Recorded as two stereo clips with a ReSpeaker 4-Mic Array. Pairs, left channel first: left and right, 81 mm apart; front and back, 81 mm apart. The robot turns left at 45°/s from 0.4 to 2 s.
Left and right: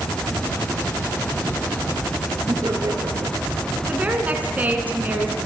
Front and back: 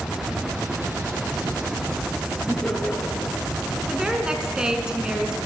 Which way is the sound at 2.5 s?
70° right.